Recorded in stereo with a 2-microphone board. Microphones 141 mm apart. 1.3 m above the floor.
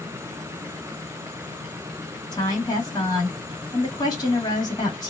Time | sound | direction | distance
2.3 | a woman speaking | 30° left (ahead or behind) | 2 m